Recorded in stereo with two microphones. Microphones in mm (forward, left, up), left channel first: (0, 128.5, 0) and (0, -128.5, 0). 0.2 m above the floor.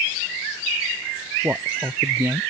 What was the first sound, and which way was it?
A man speaking, 10° right (ahead or behind).